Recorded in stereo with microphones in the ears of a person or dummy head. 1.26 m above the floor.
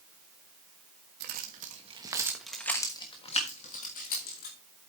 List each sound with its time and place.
1.2 s keys jangling: 55° right (ahead or behind), 1.4 m; by 4.6 s 50° left (ahead or behind), 2.5 m